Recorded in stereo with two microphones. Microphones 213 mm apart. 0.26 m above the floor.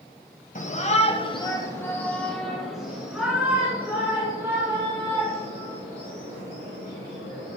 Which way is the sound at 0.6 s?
35° left (ahead or behind).